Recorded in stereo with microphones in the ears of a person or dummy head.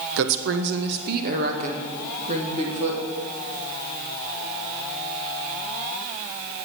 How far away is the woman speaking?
About 1.3 m.